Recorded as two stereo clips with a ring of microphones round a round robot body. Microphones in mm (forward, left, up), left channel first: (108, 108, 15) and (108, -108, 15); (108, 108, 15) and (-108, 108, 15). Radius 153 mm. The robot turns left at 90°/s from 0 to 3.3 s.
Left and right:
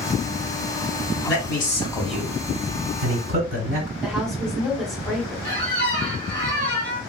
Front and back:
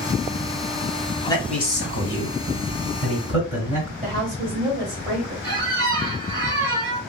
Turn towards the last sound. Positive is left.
turn(degrees=170)